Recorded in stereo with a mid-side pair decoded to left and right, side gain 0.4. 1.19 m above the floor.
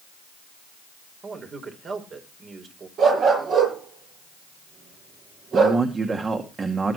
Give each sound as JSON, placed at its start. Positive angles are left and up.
{"t": 1.2, "sound": "a man speaking", "azimuth_deg": -55, "distance_m": 4.5}
{"t": 3.0, "sound": "a dog barking", "azimuth_deg": -65, "distance_m": 9.0}
{"t": 5.5, "sound": "a man speaking", "azimuth_deg": -40, "distance_m": 2.0}